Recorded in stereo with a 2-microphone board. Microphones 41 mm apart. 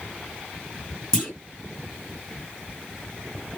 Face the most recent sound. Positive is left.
turn(degrees=15)  # may be behind; listen again after turning